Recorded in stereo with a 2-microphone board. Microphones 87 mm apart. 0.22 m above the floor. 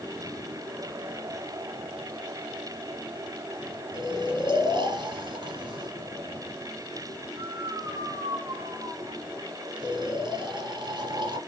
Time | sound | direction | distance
3.9 | snoring | 60° right (ahead or behind) | 1.8 m